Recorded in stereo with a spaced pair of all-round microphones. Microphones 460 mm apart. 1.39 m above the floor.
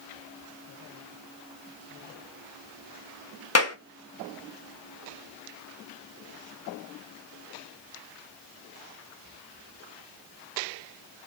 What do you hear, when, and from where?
3.5 s a clap: 35° left (ahead or behind), 1.0 m